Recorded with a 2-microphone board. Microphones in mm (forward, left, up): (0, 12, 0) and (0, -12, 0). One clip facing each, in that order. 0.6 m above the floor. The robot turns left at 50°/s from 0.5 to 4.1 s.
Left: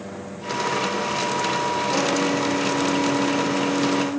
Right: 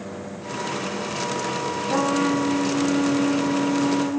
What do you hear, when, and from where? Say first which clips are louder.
1.9 s a trumpet: right 3 dB; 65° right, 5.5 m; by 4.2 s 175° right, 5.5 m